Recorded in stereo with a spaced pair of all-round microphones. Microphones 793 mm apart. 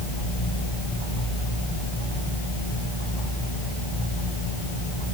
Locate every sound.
Only background noise.